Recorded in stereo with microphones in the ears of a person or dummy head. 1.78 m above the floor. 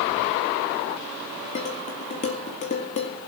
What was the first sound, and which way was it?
Dishes clattering, 40° left (ahead or behind).